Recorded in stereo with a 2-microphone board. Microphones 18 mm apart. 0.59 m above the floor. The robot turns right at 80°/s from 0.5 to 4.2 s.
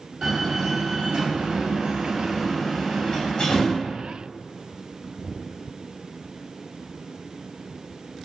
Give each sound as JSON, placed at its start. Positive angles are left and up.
{"t": 0.2, "sound": "a door slam", "side_deg": -40, "distance_m": 3.0}